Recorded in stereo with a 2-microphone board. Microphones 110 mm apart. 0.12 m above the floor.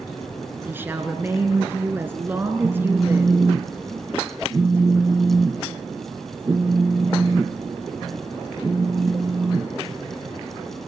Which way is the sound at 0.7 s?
20° right (ahead or behind).